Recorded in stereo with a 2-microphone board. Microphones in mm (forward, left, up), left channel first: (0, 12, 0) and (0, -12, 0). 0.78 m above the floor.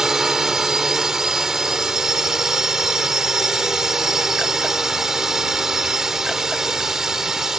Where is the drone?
20° right (ahead or behind).